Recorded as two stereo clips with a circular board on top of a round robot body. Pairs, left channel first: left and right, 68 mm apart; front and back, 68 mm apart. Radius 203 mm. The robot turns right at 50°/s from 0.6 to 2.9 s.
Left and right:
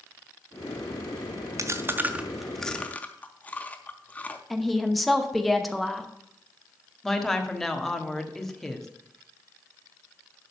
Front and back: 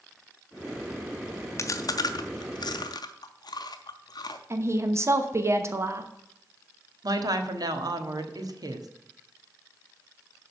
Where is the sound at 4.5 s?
Straight behind, 1.2 m.